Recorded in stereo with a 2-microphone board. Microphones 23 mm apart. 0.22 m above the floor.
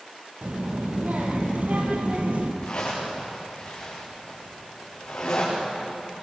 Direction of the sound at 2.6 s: 55° left (ahead or behind).